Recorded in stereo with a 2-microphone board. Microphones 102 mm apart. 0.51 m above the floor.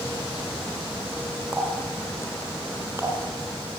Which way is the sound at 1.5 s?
25° right (ahead or behind).